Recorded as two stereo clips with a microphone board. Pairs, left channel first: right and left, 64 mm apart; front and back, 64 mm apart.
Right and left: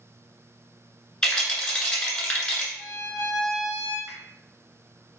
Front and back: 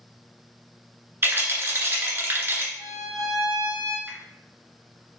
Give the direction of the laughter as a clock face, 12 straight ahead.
No laughter in this recording.